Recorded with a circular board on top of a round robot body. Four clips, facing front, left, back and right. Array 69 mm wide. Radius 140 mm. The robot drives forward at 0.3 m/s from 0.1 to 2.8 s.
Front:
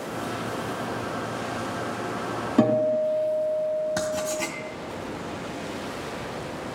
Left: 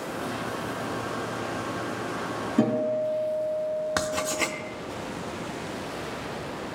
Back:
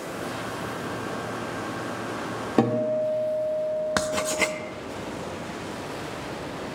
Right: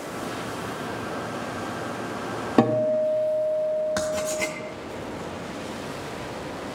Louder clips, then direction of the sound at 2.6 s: Right 4 dB, front 2 dB; 110° right.